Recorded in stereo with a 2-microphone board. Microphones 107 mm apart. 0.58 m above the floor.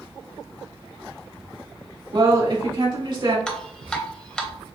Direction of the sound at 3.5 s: 10° left (ahead or behind).